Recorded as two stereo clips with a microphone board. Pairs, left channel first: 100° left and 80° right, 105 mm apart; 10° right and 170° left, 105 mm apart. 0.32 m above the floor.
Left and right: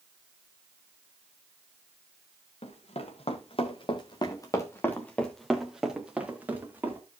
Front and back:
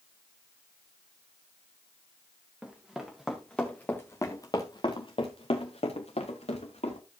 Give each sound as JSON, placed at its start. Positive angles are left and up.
{"t": 2.6, "sound": "running footsteps", "azimuth_deg": 90, "distance_m": 2.5}